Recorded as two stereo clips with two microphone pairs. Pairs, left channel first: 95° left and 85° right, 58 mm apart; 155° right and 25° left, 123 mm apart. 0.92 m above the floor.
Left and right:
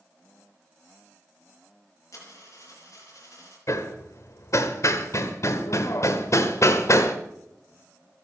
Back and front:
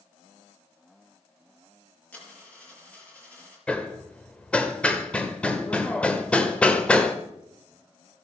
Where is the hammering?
125° left, 1.4 m.